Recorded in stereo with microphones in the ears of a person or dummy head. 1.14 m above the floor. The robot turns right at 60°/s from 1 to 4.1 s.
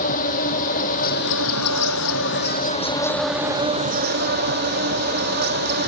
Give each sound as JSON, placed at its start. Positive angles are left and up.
{"t": 0.0, "sound": "an insect", "azimuth_deg": 45}